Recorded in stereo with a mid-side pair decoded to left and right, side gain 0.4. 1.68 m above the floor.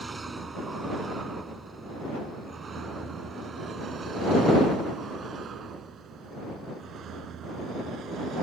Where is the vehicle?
25° right; by 8.4 s 70° right.